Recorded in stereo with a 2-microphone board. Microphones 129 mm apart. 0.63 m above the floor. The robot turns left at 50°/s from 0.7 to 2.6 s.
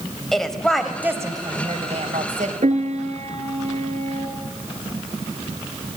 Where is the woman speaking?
5° left, 3 m; by 2.5 s 90° right, 3 m.